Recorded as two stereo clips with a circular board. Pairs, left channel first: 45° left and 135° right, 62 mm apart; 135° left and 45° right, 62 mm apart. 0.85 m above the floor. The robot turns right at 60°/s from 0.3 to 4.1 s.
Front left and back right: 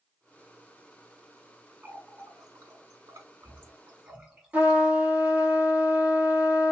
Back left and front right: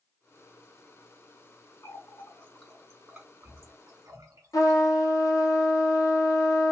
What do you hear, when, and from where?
1.8 s a running tap: 160° left, 2.5 m; by 4.8 s 65° right, 2.5 m
4.5 s a trumpet: 155° left, 1.1 m